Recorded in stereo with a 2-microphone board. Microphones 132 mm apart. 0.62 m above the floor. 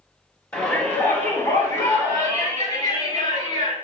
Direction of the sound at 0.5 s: 15° left (ahead or behind).